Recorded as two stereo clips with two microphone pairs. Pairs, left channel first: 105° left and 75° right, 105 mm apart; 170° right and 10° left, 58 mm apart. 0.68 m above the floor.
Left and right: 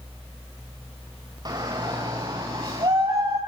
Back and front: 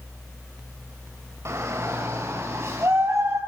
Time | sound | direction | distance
1.4 | a shout | 30° right | 3 m